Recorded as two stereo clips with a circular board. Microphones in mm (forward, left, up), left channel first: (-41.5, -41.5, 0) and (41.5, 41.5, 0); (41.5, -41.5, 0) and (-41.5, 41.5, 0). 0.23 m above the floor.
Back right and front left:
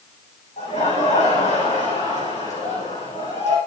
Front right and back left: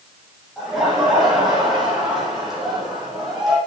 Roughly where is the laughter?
Behind right.